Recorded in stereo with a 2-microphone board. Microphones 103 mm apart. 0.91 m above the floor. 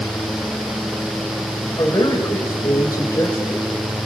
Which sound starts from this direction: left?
A man speaking, at 1.8 s.